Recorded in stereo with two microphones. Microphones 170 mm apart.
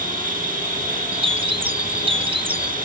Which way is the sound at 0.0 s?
50° right (ahead or behind).